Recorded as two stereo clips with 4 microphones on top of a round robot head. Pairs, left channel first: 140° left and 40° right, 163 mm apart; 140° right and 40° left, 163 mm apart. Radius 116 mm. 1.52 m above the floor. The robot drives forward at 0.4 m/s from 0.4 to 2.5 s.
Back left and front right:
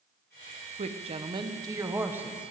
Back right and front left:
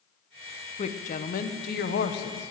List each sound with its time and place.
0.8 s a woman speaking: 90° right, 1.0 m; by 2.5 s 125° right, 1.2 m